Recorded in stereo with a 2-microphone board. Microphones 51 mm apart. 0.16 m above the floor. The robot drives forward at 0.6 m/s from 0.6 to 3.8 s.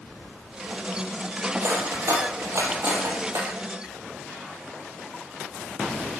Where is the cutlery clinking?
75° right (ahead or behind), 3.5 m; by 3.5 s 70° right (ahead or behind), 3.5 m.